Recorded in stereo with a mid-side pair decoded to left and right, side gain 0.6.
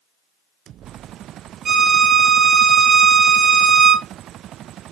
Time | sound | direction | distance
1.6 | a violin | 35° right | 0.8 m